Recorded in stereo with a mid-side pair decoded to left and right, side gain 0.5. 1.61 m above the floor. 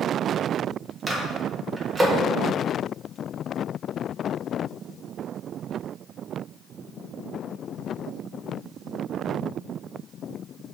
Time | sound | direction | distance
1.1 | a microwave | 25° right | 1.6 m